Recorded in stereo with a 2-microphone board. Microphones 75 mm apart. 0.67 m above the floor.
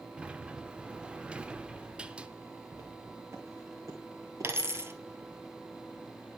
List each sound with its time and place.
0.2 s a sliding door: 15° right (ahead or behind), 0.5 m
2.7 s footsteps: 35° right (ahead or behind), 2.5 m; by 4.5 s 55° right (ahead or behind), 2.5 m
4.4 s a dropped coin: 35° right (ahead or behind), 0.9 m